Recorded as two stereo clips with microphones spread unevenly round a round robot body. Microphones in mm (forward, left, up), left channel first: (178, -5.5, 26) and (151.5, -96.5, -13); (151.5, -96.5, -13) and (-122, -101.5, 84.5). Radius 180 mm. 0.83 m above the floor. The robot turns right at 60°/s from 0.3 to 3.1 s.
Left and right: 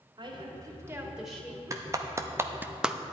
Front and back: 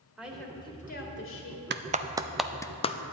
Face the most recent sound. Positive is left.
turn(degrees=-30)